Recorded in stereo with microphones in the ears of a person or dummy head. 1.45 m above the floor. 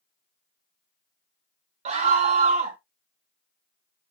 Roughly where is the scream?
Right.